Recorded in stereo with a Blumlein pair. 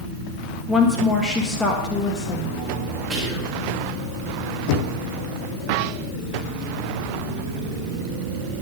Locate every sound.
0.7 s a woman speaking: 5° left, 1.3 m
3.1 s whispering: 30° right, 1.9 m
4.7 s knocking: 45° left, 0.6 m